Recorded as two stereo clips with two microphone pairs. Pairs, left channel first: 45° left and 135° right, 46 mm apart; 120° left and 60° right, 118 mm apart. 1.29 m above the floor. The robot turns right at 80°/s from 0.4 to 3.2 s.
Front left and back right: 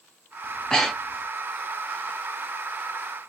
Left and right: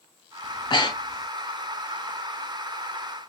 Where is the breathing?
90° left, 0.5 m; by 1.3 s 155° left, 0.5 m.